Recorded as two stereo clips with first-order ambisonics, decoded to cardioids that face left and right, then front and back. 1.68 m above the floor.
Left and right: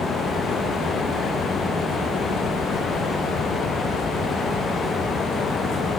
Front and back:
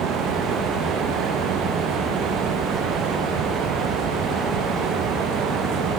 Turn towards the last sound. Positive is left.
No sound to turn to.